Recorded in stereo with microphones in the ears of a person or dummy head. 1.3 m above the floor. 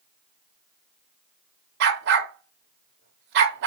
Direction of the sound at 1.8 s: 55° right (ahead or behind).